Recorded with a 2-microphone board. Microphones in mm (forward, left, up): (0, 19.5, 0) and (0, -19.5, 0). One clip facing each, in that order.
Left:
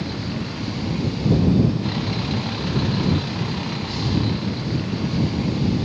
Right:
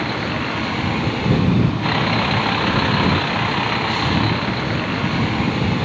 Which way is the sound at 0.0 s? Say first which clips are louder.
Right 6 dB; 50° right (ahead or behind).